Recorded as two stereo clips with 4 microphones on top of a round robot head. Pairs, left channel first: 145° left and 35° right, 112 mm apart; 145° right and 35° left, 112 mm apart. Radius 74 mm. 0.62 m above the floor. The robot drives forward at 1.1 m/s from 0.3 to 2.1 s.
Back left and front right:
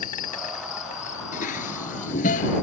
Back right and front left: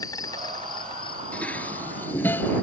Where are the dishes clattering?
135° left; by 2.6 s 140° left.